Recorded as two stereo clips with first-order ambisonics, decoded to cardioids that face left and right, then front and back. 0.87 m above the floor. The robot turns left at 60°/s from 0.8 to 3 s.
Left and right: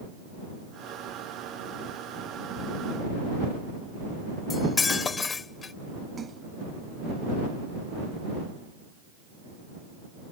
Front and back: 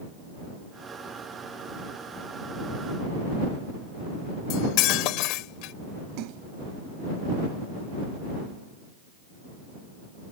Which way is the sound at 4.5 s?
20° left.